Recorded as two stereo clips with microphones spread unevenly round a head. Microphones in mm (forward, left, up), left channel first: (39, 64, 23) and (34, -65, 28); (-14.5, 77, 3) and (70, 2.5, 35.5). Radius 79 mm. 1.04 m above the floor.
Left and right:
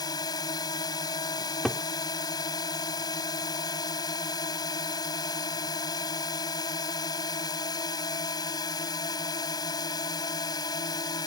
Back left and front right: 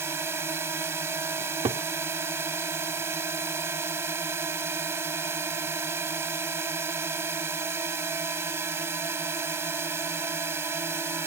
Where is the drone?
25° left.